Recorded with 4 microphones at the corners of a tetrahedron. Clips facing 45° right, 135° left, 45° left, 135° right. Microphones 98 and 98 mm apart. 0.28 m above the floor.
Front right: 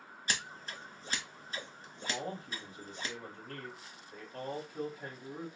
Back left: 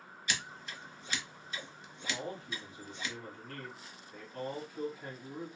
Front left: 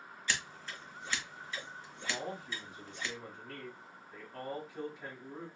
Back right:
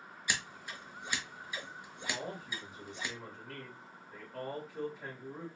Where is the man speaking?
45° right, 1.4 m.